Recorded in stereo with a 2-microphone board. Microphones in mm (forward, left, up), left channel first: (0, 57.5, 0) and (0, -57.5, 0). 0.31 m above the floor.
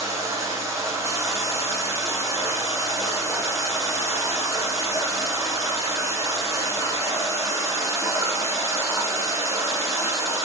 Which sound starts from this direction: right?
Running water, at 0.0 s.